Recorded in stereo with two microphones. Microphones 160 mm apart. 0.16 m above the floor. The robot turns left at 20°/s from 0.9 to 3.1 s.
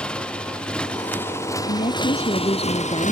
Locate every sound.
0.0 s a motorcycle: 175° left; by 3.1 s 130° left
1.7 s a woman speaking: 50° left (ahead or behind); by 3.1 s 30° left (ahead or behind)